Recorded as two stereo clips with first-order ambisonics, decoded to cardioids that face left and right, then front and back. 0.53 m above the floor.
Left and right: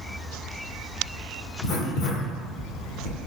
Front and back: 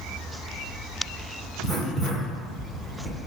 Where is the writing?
75° left, 1.0 m.